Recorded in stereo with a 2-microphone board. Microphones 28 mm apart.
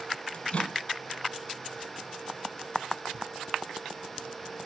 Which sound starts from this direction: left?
A microwave, at 0.3 s.